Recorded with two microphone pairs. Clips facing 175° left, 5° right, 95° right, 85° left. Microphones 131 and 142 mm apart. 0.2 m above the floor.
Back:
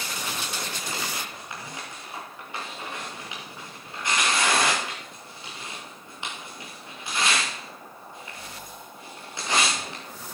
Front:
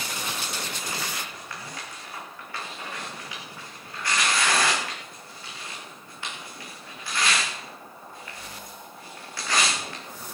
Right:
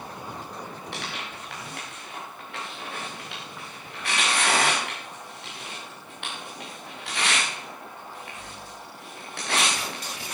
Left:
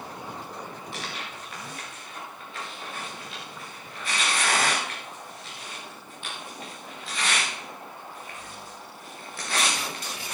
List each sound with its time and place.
0.9 s tearing paper: 110° right, 5.5 m